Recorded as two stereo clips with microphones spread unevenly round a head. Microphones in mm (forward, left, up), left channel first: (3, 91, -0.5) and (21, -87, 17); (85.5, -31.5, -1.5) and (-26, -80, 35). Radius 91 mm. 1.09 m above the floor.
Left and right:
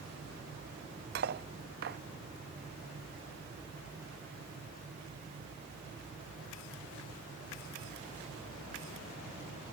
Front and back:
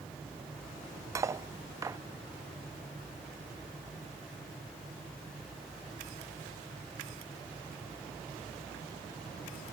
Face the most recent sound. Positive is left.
turn(degrees=-105)